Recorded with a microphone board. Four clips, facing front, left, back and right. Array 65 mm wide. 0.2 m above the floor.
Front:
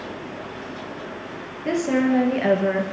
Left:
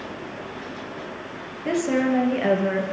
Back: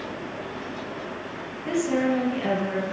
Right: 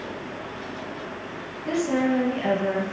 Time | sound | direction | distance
1.6 | a woman speaking | 45° left | 3.5 m